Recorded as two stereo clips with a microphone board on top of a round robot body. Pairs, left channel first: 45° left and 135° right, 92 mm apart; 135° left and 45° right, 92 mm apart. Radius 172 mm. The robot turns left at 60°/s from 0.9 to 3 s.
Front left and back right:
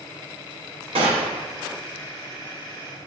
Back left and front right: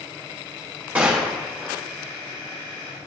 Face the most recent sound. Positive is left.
turn(degrees=120)